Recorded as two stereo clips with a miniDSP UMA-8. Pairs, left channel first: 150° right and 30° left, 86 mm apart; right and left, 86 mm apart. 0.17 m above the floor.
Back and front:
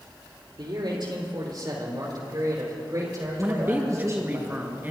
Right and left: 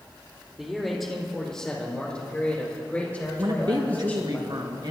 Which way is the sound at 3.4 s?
95° left.